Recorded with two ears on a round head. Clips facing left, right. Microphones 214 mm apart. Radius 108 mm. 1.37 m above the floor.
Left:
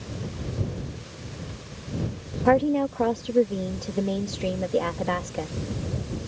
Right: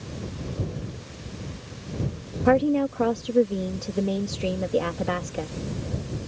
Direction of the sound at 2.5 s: 10° right (ahead or behind).